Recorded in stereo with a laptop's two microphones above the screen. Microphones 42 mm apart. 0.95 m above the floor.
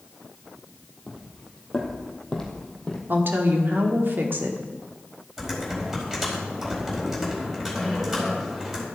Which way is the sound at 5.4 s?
15° right (ahead or behind).